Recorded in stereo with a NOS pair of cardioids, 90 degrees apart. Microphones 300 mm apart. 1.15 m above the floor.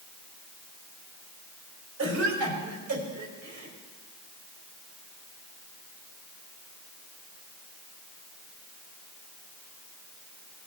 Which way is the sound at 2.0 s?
60° right.